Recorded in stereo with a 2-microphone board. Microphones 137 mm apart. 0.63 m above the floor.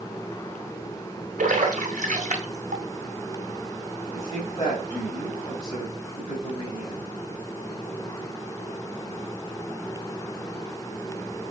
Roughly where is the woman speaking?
Left.